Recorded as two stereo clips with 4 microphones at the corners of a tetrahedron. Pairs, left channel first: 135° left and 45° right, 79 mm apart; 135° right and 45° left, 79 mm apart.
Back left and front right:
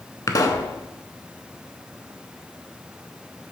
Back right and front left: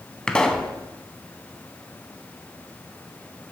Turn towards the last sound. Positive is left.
turn(degrees=150)